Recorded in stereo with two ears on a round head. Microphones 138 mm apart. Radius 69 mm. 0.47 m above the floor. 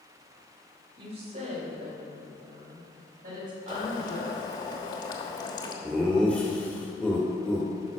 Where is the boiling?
30° left (ahead or behind), 1.2 m.